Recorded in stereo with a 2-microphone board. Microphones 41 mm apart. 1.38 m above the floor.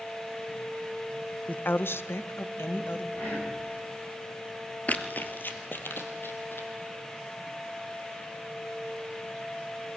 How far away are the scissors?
No scissors in this recording.